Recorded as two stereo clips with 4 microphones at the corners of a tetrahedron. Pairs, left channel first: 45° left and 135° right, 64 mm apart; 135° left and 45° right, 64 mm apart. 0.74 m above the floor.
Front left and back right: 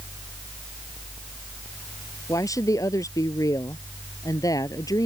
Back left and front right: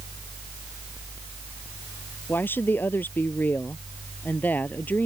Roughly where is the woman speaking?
Left.